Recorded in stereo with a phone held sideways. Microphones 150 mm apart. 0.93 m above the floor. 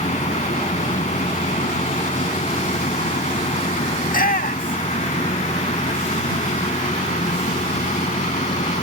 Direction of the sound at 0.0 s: 50° left (ahead or behind).